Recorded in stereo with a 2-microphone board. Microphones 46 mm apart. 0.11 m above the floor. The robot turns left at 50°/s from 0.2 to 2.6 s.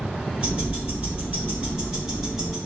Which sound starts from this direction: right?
Ticking, at 0.4 s.